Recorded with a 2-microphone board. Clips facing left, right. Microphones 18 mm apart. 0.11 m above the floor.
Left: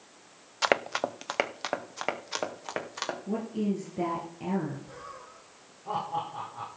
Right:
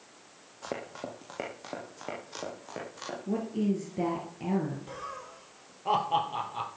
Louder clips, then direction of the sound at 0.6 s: Left 11 dB; 85° left.